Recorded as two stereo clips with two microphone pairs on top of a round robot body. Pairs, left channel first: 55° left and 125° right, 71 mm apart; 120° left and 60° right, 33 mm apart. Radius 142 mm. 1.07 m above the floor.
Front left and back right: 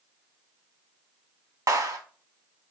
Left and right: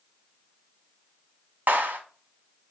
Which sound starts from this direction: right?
A clap, at 1.7 s.